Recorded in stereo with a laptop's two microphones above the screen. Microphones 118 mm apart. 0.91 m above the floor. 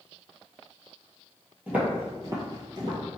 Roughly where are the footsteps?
Centre.